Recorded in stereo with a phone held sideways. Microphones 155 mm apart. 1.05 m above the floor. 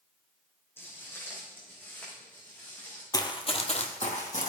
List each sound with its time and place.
0.8 s footsteps: 15° left (ahead or behind), 4 m; by 3.0 s 10° left (ahead or behind), 6.5 m
3.1 s running footsteps: 25° left (ahead or behind), 1.1 m; by 4.5 s 55° left (ahead or behind), 2 m